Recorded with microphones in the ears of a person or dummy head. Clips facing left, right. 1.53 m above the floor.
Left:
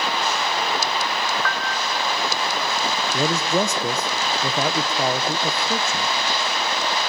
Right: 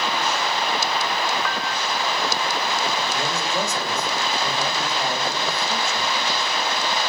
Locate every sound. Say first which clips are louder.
1.4 s a piano: even; 10° right (ahead or behind), 0.6 m
3.1 s a man speaking: left 4 dB; 65° left (ahead or behind), 1.2 m